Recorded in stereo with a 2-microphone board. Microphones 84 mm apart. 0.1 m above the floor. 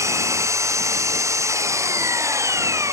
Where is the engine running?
35° right (ahead or behind).